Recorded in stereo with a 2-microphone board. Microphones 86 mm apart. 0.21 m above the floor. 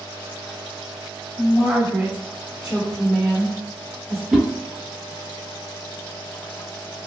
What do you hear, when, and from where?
1.4 s a woman speaking: 15° right (ahead or behind), 1.7 m; by 4.2 s 5° left (ahead or behind), 1.6 m
4.3 s a whoosh: 5° right (ahead or behind), 0.7 m